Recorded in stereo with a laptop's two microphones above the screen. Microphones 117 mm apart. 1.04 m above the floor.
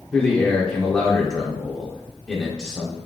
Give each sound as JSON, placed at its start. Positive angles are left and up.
{"t": 0.1, "sound": "a man speaking", "side_deg": 10, "distance_m": 0.7}